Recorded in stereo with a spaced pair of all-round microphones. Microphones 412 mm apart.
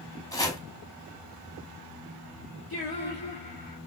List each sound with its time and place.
0.3 s chopping: 10° left (ahead or behind), 1.0 m
2.7 s singing: 60° left (ahead or behind), 1.6 m